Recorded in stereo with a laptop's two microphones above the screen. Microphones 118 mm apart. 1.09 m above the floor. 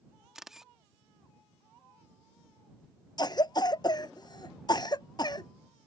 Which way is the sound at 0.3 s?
5° right (ahead or behind).